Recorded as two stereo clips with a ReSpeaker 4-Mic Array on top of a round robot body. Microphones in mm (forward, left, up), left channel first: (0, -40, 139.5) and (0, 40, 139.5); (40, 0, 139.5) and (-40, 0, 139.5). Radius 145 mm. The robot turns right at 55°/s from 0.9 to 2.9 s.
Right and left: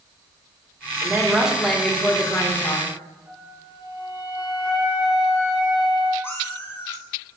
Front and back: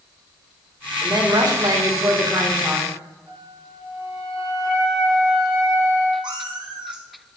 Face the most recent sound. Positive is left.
turn(degrees=-155)